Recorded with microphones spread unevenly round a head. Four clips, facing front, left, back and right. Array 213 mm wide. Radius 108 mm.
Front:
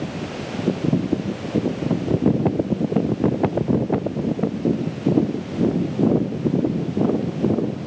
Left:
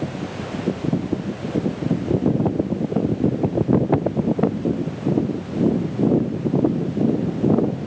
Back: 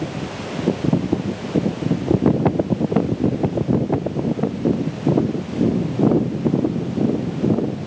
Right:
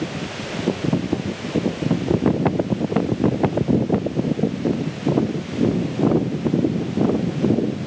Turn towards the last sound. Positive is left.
No sound to turn to.